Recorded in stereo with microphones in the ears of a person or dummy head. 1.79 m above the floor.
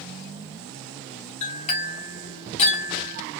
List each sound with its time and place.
1.4 s a clink: 40° left (ahead or behind), 1.5 m